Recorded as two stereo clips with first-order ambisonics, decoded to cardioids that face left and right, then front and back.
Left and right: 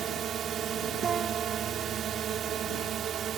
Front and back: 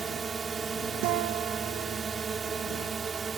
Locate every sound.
0.0 s a drone: 120° right
1.0 s a guitar: 160° right